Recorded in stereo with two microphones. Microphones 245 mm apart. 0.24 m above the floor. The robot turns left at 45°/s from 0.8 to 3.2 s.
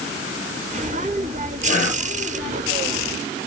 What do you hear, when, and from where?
1.6 s whispering: 50° left (ahead or behind), 7 m; by 2.1 s 70° left (ahead or behind), 7 m